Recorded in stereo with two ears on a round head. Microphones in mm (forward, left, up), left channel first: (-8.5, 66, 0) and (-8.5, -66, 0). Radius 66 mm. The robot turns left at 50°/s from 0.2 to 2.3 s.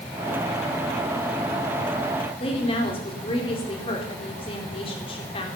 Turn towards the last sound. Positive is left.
turn(degrees=40)  # may be behind; listen again after turning